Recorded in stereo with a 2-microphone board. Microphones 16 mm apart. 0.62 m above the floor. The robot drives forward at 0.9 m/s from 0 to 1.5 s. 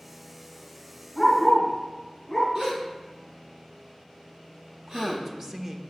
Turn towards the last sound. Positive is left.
turn(degrees=-20)  # may be behind; listen again after turning